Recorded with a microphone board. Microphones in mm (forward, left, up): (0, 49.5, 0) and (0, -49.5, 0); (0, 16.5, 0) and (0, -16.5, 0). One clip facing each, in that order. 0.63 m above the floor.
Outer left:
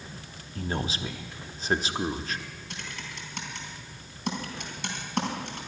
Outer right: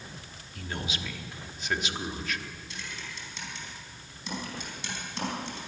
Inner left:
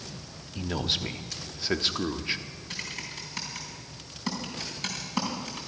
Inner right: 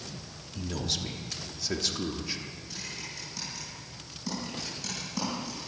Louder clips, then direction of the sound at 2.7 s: Outer left 2 dB, inner left 5 dB; 55° left (ahead or behind).